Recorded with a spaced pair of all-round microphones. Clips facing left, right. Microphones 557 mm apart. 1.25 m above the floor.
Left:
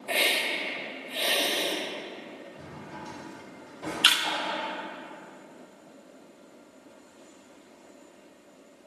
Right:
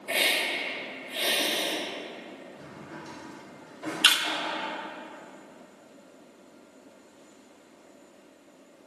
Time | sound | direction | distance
0.1 | a hiss | 35° right (ahead or behind) | 1.8 m
2.6 | a drawer | 50° left (ahead or behind) | 1.4 m
4.0 | a camera shutter | 65° right (ahead or behind) | 0.8 m